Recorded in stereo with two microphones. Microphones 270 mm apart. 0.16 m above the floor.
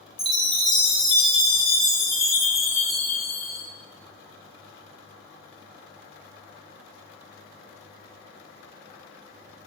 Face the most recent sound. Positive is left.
turn(degrees=45)  # may be behind; listen again after turning